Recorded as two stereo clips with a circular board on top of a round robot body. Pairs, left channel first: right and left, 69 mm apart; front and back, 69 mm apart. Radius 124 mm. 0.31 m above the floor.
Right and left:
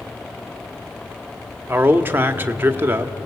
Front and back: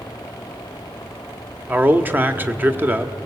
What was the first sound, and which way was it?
A man speaking, 130° left.